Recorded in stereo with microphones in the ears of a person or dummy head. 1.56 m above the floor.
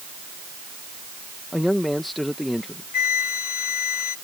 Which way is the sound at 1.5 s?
Centre (ahead or behind).